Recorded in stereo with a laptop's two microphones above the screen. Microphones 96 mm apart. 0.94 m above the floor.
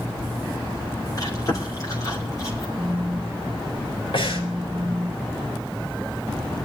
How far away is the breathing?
About 4 m.